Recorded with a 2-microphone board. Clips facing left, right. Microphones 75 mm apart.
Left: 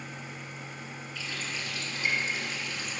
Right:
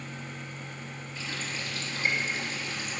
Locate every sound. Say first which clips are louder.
1.1 s a running tap: right 1 dB; 30° right (ahead or behind), 2.5 m